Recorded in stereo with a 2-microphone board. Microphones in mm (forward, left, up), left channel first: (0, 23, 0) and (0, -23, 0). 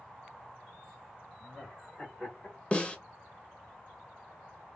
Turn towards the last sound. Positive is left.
turn(degrees=25)  # may be behind; listen again after turning